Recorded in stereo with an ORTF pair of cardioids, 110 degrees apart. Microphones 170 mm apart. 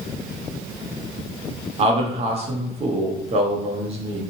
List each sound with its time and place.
1.8 s a man speaking: 35° right, 0.8 m